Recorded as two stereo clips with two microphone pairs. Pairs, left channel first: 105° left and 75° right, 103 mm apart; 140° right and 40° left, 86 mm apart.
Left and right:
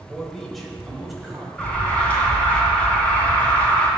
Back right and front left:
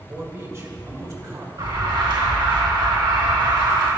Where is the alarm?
30° left, 2.5 m.